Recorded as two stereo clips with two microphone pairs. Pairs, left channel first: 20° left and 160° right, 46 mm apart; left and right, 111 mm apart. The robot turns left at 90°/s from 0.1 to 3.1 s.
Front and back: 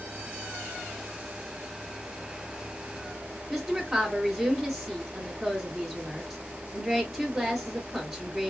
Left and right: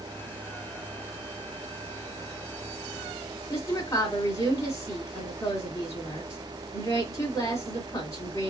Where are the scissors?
No scissors in this recording.